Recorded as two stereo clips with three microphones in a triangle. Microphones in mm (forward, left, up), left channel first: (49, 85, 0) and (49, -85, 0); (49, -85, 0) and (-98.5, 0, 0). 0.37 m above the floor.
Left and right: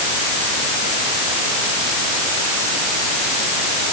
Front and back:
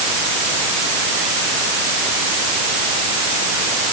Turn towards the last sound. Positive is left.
No sound to turn to.